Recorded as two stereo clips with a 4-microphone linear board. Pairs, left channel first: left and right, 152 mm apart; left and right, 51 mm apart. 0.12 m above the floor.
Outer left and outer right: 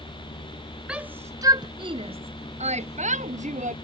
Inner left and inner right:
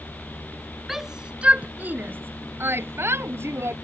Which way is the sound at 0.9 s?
5° right (ahead or behind).